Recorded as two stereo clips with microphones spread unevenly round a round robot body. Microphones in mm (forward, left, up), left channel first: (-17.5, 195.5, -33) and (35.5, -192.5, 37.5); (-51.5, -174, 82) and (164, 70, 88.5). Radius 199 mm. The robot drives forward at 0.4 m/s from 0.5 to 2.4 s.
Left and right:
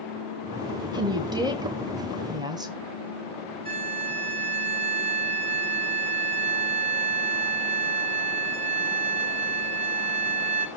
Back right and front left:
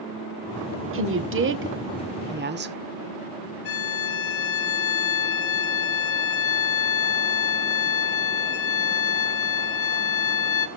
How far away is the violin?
About 2 m.